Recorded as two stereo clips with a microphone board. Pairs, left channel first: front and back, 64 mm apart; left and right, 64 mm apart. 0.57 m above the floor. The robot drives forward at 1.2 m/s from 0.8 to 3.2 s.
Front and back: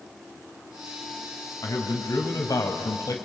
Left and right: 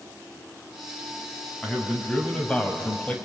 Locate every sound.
1.6 s a man speaking: 15° left, 5 m; by 3.1 s 20° left, 3 m